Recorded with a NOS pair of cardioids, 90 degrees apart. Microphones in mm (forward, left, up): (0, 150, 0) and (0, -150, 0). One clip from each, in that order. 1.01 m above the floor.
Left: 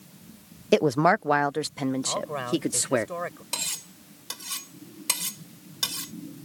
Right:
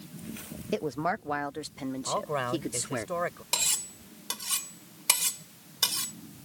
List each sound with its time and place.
0.7 s a woman speaking: 50° left; by 3.1 s 40° left
2.1 s a man speaking: 15° right
3.5 s cutlery clinking: 15° right